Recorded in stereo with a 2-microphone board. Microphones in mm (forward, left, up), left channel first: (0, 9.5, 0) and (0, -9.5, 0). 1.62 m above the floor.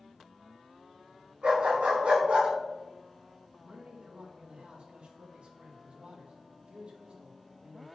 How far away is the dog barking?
About 6 m.